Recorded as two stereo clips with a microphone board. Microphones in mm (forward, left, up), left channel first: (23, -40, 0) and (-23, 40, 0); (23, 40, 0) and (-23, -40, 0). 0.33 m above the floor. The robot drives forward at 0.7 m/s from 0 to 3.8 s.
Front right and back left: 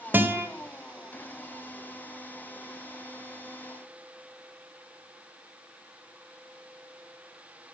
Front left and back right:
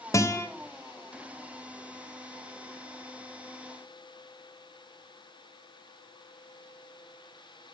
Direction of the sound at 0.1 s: 70° left.